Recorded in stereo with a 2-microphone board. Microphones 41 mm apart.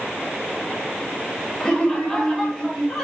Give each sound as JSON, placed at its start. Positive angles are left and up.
{"t": 1.6, "sound": "laughter", "side_deg": 10, "distance_m": 7.0}